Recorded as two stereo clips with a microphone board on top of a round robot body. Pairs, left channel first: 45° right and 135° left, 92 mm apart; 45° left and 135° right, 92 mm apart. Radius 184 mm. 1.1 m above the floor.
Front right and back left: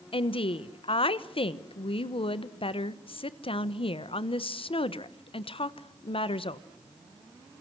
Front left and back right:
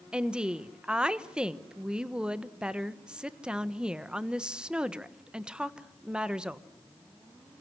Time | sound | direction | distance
0.1 | a woman speaking | 55° right | 1.4 m